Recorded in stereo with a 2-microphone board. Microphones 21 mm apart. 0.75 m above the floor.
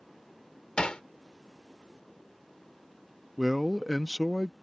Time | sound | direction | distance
0.8 | hammering | 50° left (ahead or behind) | ?
3.4 | a man speaking | 5° right (ahead or behind) | ?